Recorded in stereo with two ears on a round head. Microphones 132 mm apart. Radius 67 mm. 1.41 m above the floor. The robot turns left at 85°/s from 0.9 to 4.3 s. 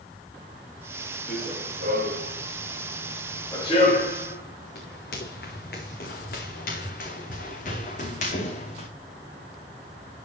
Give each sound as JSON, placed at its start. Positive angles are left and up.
{"t": 1.3, "sound": "running footsteps", "side_deg": 0, "distance_m": 7.0}